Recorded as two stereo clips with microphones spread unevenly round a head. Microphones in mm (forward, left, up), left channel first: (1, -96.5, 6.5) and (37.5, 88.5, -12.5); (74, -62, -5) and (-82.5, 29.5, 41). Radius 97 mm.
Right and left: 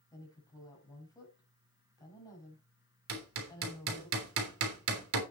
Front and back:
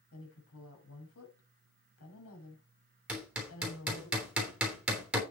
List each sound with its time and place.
0.1 s a woman speaking: 30° right, 5.5 m
3.1 s hammering: 65° left, 3.5 m